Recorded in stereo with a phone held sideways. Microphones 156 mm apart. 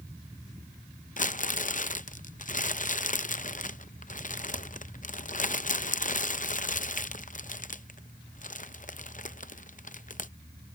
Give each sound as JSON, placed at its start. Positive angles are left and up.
{"t": 1.2, "sound": "crumpling", "side_deg": 60}